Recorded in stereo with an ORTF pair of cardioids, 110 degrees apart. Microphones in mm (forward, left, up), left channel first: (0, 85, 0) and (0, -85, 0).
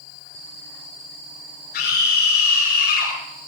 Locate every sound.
1.7 s a scream: 70° left, 7.5 m